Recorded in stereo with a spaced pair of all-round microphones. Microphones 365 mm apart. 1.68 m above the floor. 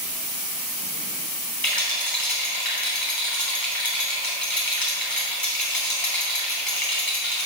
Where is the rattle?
70° left (ahead or behind), 3 m.